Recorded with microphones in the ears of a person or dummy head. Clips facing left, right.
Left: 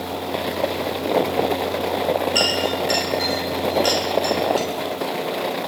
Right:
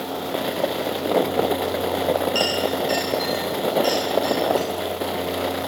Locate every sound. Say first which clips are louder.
2.4 s a clink: even; 25° left (ahead or behind), 9.5 m